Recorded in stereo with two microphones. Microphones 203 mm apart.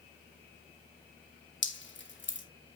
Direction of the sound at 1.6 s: 65° left (ahead or behind).